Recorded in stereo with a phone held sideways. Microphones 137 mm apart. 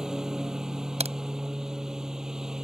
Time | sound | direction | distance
0.0 | a lawn mower | 5° right (ahead or behind) | ?
1.0 | a crack | 55° right (ahead or behind) | ?